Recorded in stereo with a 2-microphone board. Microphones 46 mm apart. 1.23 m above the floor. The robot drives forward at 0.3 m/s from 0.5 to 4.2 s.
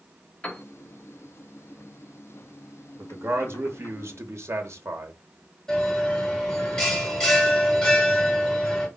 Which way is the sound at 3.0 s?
50° right (ahead or behind).